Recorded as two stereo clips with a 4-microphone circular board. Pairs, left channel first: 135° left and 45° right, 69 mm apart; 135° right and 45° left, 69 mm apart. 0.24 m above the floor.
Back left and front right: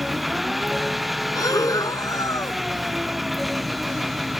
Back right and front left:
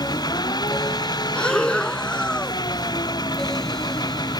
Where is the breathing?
150° left.